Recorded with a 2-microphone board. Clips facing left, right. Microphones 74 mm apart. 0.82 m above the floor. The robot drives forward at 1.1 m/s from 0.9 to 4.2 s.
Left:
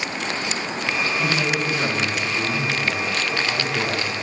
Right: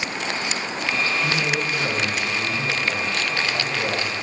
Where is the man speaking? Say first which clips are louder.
Left 1 dB; 60° left (ahead or behind), 4.5 m; by 4.1 s 40° left (ahead or behind), 7 m.